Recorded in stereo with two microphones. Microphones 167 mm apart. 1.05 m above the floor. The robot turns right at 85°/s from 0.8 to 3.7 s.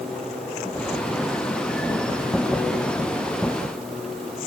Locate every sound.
Only background noise.